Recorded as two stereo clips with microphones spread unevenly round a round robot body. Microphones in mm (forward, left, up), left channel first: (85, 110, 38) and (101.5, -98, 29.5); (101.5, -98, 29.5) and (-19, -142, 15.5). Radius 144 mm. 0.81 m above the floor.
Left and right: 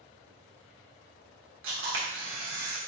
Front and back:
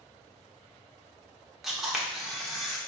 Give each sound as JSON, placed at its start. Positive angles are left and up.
{"t": 1.6, "sound": "a camera shutter", "azimuth_deg": -70, "distance_m": 1.5}